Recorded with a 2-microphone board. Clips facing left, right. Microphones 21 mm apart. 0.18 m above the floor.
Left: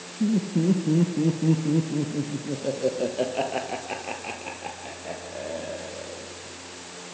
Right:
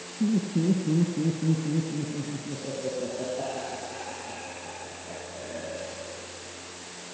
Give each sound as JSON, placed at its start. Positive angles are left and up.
{"t": 0.2, "sound": "laughter", "side_deg": 5, "distance_m": 2.5}